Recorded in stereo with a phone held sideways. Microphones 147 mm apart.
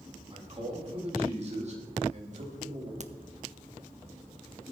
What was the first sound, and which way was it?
A man speaking, 40° right (ahead or behind).